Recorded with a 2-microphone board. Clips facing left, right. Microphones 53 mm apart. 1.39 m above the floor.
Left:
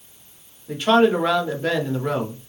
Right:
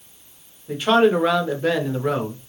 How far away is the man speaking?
About 0.8 m.